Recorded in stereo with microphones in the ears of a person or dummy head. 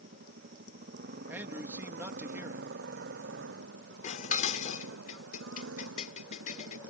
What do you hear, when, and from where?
0.0 s a motorcycle: 50° right (ahead or behind); by 6.9 s 85° right
1.3 s a man speaking: 10° right (ahead or behind)
4.0 s dishes clattering: 50° left (ahead or behind)